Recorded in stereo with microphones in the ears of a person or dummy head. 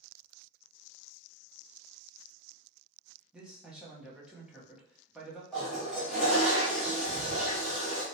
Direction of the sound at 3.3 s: 5° right (ahead or behind).